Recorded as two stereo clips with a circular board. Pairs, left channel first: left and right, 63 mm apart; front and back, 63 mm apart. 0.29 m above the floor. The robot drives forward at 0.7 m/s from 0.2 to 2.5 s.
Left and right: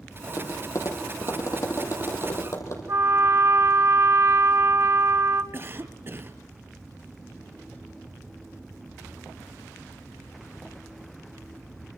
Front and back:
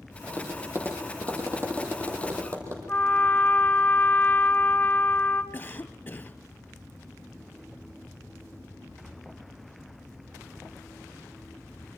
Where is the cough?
60° right, 1.6 m.